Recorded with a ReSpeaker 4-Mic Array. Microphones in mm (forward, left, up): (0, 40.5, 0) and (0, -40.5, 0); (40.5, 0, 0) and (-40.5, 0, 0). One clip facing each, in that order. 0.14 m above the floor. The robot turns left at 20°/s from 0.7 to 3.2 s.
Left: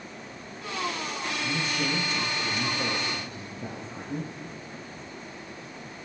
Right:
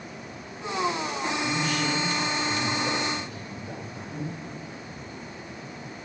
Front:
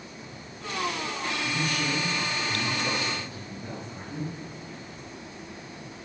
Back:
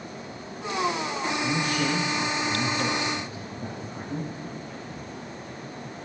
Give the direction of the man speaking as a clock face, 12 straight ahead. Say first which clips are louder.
Right 1 dB, back 3 dB; 7 o'clock.